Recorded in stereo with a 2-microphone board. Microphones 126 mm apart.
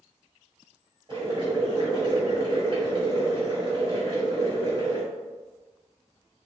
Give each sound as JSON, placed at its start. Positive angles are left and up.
{"t": 1.1, "sound": "boiling", "side_deg": -40, "distance_m": 1.9}